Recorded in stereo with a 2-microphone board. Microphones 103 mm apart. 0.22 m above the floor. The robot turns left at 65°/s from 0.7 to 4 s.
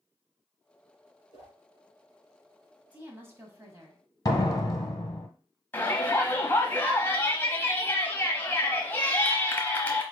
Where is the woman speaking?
30° right, 1.2 m; by 4.0 s 100° right, 1.2 m.